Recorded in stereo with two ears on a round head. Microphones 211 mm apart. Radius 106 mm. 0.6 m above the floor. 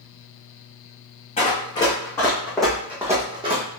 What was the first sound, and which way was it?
Running footsteps, 25° left (ahead or behind).